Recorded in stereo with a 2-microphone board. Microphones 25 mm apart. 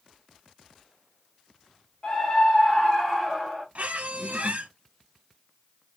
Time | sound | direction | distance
2.0 | a scream | 25° left (ahead or behind) | 1.4 m
3.8 | a squeak | 65° right (ahead or behind) | 0.8 m